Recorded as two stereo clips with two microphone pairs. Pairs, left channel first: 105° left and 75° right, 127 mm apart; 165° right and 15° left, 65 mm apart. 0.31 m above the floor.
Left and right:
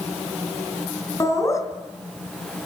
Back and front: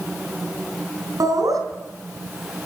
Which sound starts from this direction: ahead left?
Laughter, at 1.2 s.